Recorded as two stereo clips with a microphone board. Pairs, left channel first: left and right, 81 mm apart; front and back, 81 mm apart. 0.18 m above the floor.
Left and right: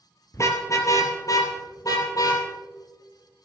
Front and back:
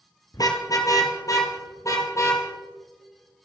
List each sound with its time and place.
0.3 s a car horn: 40° left, 2 m; by 2.4 s 50° left, 3 m